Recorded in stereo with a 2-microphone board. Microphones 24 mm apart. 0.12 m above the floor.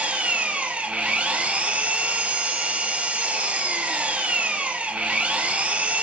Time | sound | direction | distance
0.0 | an engine running | 65° right (ahead or behind) | 1.0 m